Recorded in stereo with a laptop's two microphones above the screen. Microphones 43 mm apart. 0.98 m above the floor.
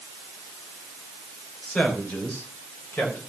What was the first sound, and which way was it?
A man speaking, 20° left (ahead or behind).